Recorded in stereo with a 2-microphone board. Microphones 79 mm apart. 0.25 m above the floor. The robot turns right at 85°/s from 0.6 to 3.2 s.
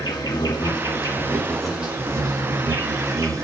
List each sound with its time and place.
0.0 s an insect: 90° left, 3 m; by 3.5 s 50° right, 3 m